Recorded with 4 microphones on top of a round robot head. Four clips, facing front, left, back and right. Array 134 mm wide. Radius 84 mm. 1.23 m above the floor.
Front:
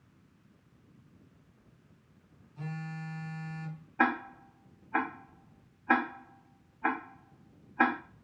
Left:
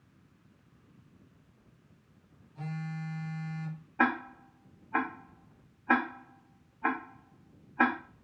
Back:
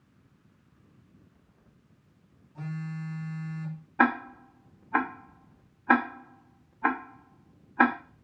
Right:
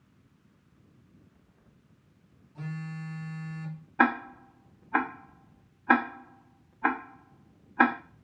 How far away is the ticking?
About 0.6 m.